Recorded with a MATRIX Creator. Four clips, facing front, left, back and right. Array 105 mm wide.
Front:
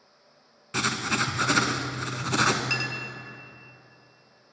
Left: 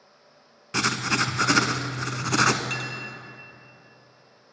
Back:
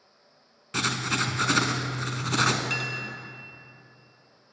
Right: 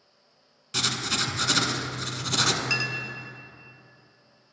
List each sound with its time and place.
0.7 s writing: 85° left, 0.5 m
2.7 s a clink: 60° right, 1.0 m